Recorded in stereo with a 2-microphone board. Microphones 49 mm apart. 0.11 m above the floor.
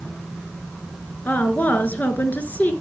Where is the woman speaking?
35° left (ahead or behind), 1.6 m.